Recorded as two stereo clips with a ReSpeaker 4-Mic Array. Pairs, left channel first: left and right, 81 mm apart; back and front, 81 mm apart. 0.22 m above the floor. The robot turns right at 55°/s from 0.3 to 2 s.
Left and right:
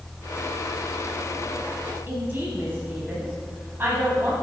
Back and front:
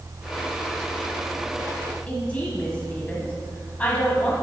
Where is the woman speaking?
120° right, 1.3 m.